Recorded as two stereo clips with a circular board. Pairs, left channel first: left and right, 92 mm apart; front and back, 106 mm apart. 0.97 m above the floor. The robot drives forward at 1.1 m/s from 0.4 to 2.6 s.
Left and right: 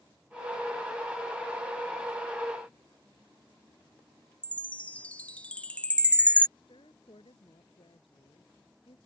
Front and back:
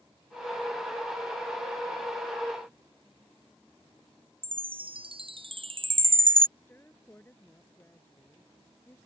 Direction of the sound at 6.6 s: 70° left.